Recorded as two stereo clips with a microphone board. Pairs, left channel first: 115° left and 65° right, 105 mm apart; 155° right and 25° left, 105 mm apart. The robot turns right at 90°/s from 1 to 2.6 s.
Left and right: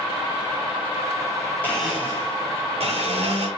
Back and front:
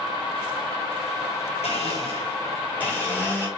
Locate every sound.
1.6 s a blender: 175° right, 4 m; by 3.5 s 85° right, 4 m